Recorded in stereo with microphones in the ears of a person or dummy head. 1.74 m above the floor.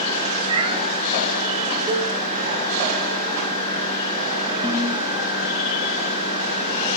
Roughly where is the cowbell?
Right.